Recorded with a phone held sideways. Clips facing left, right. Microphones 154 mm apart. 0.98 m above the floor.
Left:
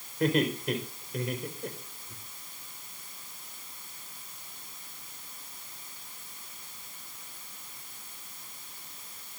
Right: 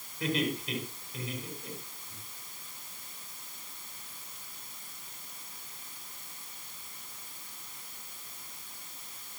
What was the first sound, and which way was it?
Laughter, 55° left (ahead or behind).